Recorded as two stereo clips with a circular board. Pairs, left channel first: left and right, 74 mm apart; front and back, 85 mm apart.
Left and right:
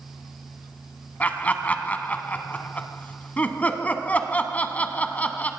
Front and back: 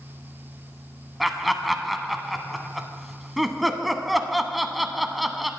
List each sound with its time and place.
1.2 s laughter: 90° left, 1.0 m